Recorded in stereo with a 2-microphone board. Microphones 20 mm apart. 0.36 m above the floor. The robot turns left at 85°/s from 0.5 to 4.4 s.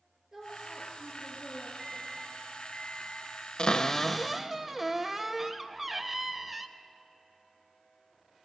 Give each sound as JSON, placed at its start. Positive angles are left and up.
{"t": 0.3, "sound": "a woman speaking", "azimuth_deg": -160, "distance_m": 4.5}
{"t": 1.8, "sound": "a microwave", "azimuth_deg": 170, "distance_m": 3.5}
{"t": 3.6, "sound": "a cupboard door", "azimuth_deg": 50, "distance_m": 0.5}